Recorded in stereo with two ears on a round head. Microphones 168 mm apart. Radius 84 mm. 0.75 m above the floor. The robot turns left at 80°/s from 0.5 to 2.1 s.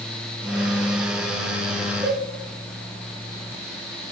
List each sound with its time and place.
2.0 s a cowbell: 20° right (ahead or behind), 0.7 m; by 2.2 s 15° right (ahead or behind), 0.7 m